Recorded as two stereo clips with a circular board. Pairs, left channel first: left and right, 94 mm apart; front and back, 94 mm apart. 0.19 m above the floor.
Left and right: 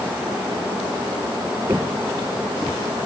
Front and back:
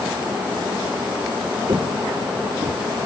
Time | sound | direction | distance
1.7 | footsteps | 145° right | ?